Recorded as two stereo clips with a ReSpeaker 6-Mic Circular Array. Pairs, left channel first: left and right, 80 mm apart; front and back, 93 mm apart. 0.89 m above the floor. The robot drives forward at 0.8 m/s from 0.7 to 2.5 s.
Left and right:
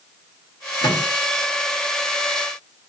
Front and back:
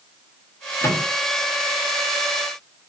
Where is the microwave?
55° left, 0.9 m; by 1.0 s 70° left, 0.8 m.